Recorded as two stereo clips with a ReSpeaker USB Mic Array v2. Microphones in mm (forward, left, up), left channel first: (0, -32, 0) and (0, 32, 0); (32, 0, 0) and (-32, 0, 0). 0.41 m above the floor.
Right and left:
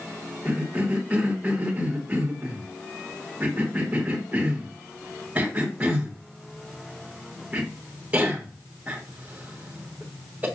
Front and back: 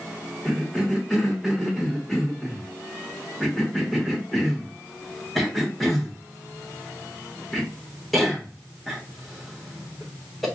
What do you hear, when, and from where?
0.5 s a cough: 85° left, 1.4 m